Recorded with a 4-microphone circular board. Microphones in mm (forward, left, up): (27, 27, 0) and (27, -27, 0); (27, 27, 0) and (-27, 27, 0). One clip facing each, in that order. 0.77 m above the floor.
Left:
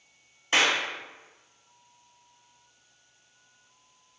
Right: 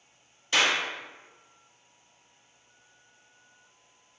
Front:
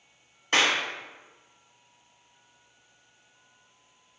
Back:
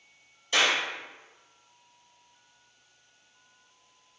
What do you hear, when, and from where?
0.5 s a clap: 35° left, 1.0 m